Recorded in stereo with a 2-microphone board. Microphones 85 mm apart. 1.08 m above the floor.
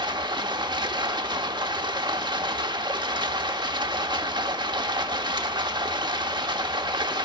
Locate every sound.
0.0 s running water: 55° right (ahead or behind), 0.8 m